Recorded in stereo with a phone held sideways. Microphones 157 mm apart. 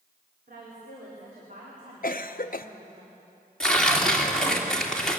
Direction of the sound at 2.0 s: 60° left (ahead or behind).